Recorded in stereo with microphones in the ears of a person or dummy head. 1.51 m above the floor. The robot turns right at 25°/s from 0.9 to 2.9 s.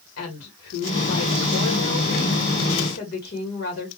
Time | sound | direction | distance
0.2 | a woman speaking | 80° left | 1.5 m